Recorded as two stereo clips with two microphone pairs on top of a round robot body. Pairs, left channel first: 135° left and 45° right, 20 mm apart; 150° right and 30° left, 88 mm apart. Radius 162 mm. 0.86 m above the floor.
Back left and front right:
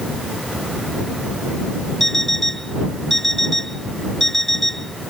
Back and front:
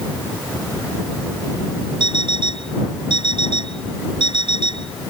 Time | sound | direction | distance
2.0 | an alarm clock | 60° left | ?